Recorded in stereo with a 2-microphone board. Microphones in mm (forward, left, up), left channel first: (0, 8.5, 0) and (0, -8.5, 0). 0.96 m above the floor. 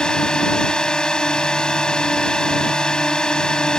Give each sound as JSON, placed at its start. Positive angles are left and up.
{"t": 0.0, "sound": "a drone", "side_deg": 65}